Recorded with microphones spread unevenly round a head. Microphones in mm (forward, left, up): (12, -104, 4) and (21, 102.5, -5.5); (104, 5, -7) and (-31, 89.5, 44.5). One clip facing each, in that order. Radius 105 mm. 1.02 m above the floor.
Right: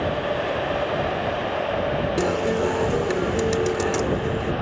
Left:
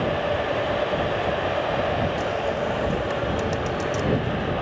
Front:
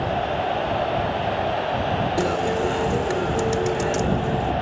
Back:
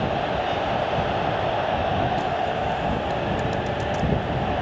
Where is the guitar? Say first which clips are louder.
Right 4 dB, front 3 dB; 75° right.